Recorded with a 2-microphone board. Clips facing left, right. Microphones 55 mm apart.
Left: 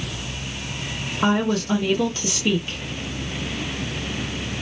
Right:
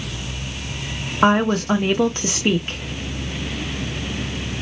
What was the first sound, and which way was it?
A woman speaking, 45° right (ahead or behind).